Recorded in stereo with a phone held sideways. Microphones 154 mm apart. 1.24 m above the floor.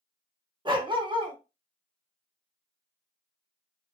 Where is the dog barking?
30° right (ahead or behind), 0.7 m.